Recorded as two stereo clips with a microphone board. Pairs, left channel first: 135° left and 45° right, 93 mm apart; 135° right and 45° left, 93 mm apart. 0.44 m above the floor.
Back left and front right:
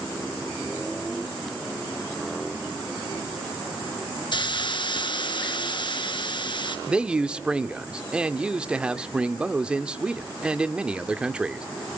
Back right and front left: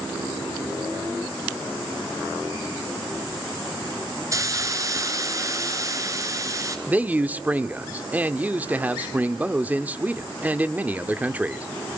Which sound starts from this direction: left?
A hiss, at 4.3 s.